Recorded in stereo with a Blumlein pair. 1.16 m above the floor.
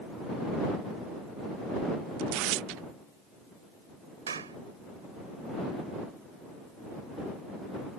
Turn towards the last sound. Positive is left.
turn(degrees=-70)